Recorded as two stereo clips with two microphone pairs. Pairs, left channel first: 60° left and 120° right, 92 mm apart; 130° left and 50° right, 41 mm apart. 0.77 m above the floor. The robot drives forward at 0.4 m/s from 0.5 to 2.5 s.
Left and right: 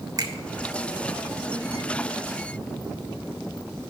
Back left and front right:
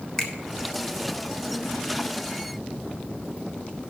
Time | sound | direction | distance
0.2 | a finger snap | 160° right | 1.4 m